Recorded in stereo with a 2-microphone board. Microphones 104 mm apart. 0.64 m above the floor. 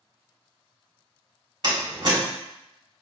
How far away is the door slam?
About 1.8 m.